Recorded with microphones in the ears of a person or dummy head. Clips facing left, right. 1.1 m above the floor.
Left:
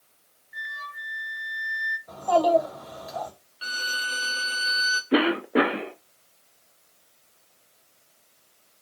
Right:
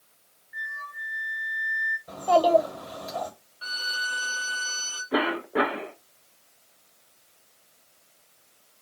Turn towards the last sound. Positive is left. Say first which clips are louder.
# left 5 dB
turn(degrees=35)  # may be behind; listen again after turning